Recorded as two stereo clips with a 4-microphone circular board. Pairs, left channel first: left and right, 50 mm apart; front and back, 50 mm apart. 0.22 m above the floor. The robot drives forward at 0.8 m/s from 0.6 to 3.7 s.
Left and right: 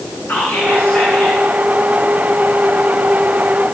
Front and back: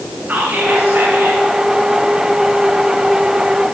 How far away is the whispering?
About 2.5 m.